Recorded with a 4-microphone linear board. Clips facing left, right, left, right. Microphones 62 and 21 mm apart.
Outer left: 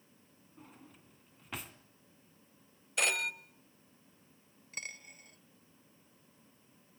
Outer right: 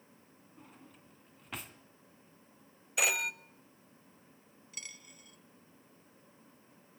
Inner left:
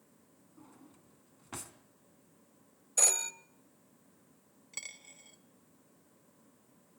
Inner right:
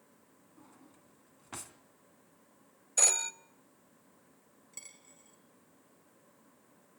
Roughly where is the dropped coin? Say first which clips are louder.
Outer left 6 dB, inner left 8 dB; left.